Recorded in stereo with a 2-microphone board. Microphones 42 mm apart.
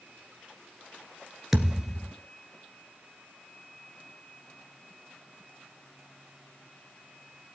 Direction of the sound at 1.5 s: 10° right (ahead or behind).